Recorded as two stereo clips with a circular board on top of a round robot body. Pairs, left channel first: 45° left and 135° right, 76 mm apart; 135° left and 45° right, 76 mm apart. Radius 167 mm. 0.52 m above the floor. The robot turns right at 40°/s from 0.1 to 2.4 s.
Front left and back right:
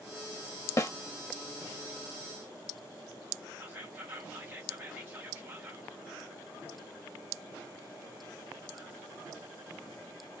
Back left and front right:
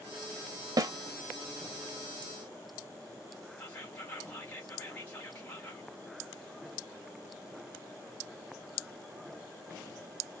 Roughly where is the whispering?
Behind.